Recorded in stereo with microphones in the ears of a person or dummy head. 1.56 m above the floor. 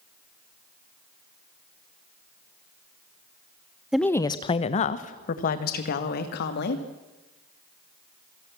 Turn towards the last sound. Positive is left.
turn(degrees=55)  # may be behind; listen again after turning